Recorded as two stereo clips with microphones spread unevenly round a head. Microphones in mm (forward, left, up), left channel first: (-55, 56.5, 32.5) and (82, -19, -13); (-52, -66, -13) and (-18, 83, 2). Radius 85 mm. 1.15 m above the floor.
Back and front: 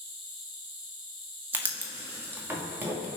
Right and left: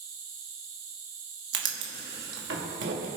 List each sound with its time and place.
0.0 s an insect: 35° left, 5 m
1.5 s writing: 50° left, 2 m